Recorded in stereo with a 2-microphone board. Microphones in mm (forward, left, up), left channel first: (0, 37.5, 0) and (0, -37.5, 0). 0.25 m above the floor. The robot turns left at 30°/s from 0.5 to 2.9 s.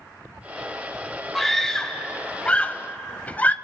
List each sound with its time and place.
1.4 s a scream: centre (ahead or behind), 1.0 m; by 3.5 s 20° left (ahead or behind), 1.0 m